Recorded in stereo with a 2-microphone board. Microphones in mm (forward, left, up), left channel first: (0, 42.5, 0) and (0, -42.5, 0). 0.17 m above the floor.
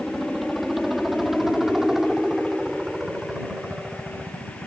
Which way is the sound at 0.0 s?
5° left (ahead or behind).